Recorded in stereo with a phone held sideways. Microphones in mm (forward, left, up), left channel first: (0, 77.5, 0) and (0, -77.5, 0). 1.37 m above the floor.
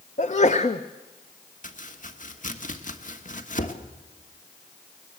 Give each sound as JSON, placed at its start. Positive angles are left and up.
{"t": 0.2, "sound": "a sneeze", "side_deg": 50, "distance_m": 0.7}
{"t": 1.6, "sound": "chopping", "side_deg": 55, "distance_m": 1.4}